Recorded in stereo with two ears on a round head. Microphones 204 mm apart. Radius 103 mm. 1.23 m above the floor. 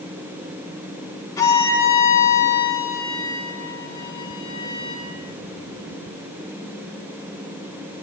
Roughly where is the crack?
No crack in this recording.